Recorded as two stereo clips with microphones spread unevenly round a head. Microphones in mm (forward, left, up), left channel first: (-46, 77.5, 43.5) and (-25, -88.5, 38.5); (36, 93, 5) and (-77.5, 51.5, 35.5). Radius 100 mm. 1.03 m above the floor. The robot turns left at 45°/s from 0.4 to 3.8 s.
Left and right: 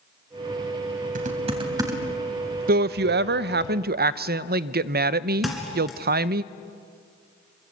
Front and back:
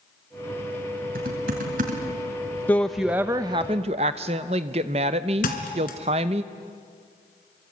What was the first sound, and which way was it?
Typing on a keyboard, 120° right.